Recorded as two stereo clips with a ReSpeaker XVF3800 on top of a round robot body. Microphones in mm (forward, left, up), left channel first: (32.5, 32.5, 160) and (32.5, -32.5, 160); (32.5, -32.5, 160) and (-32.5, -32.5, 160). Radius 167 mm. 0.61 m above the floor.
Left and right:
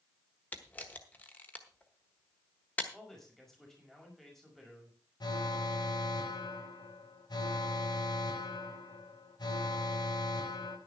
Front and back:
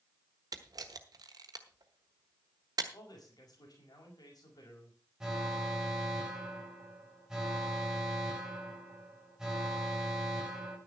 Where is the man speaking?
5° left, 5.5 m.